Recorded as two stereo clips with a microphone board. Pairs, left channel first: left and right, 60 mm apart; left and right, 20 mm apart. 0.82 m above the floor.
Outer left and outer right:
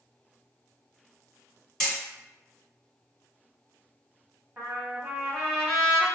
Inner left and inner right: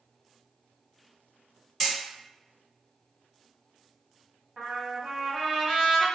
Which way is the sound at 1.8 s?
15° left (ahead or behind).